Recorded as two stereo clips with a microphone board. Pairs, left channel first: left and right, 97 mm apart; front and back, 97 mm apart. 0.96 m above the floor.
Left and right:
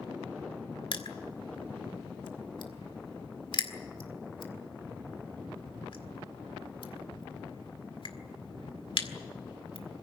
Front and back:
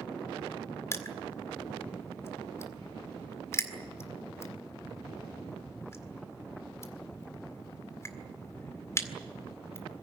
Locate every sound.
0.9 s crushing: 60° left, 1.9 m